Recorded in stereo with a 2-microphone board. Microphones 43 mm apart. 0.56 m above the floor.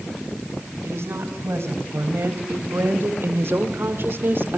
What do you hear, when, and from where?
0.8 s a woman speaking: 70° right (ahead or behind), 5 m; by 4.6 s 50° right (ahead or behind), 1.7 m